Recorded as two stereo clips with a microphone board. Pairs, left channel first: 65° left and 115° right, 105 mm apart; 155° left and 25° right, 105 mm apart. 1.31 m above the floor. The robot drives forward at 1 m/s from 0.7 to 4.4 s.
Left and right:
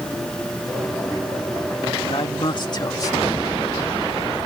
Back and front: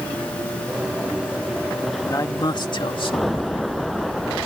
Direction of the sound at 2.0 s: 100° left.